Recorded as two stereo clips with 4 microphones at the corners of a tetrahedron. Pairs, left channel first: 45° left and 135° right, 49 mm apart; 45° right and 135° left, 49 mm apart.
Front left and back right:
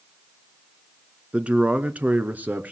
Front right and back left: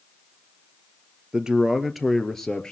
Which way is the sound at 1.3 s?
170° right.